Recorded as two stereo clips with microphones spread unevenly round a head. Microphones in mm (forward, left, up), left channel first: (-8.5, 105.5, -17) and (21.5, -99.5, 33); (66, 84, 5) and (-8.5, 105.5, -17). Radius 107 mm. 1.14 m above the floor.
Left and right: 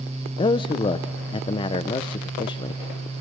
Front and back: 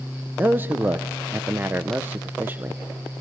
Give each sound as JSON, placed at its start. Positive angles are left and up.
{"t": 0.4, "sound": "a man speaking", "azimuth_deg": 135, "distance_m": 0.6}